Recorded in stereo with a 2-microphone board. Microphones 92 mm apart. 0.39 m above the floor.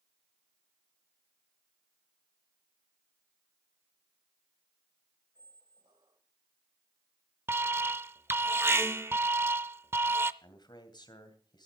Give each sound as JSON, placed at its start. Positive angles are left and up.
{"t": 5.3, "sound": "a squeak", "side_deg": -55, "distance_m": 1.3}
{"t": 7.5, "sound": "an alarm", "side_deg": -25, "distance_m": 0.5}
{"t": 10.4, "sound": "a man speaking", "side_deg": 55, "distance_m": 2.5}